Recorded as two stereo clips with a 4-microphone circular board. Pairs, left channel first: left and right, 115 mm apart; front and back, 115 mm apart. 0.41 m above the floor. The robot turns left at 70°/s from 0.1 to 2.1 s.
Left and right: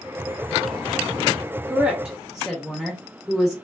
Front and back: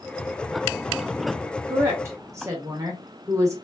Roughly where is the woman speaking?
Behind right.